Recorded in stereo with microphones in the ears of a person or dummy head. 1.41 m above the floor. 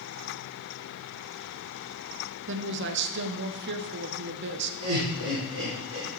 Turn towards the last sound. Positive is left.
turn(degrees=-70)  # may be behind; listen again after turning